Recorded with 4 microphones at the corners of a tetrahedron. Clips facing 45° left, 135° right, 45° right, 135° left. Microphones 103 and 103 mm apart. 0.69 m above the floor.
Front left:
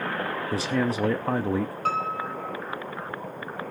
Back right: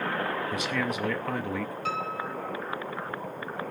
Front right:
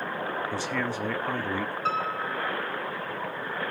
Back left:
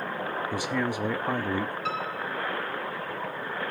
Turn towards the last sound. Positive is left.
turn(degrees=5)